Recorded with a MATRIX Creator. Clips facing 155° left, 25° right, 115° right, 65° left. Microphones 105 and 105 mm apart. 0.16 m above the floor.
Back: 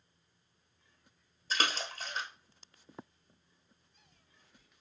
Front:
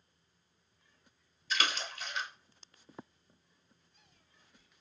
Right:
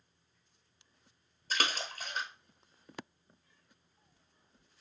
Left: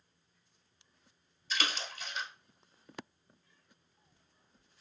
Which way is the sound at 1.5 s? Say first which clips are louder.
Back 1 dB, right 2 dB; 150° right.